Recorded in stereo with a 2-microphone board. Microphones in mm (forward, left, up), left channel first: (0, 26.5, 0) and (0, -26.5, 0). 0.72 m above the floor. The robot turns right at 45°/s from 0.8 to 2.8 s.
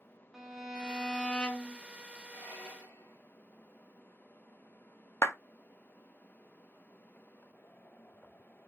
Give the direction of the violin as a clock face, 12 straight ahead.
12 o'clock.